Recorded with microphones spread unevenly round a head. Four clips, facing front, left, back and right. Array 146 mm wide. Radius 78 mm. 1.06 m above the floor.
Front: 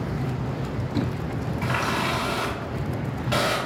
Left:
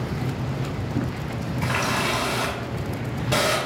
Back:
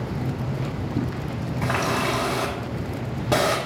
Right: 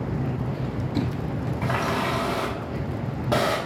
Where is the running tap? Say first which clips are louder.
Even, back 3 dB; 145° right, 1.6 m.